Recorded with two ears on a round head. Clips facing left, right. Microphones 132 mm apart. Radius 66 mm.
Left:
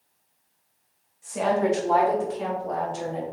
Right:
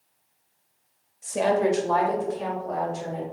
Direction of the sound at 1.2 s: 45° right (ahead or behind).